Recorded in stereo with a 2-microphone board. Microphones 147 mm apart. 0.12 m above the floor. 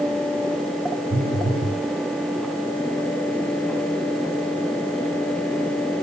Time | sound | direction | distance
1.1 | a phone buzzing | 85° right | 3 m